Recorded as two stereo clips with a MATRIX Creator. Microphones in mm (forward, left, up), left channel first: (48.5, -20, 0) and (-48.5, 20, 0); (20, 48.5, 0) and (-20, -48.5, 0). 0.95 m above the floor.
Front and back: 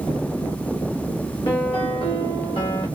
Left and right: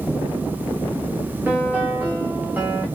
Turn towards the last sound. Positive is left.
turn(degrees=-40)